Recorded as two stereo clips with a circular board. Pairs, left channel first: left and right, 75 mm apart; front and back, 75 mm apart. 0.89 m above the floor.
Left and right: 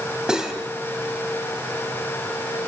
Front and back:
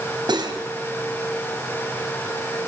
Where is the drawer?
I don't hear a drawer.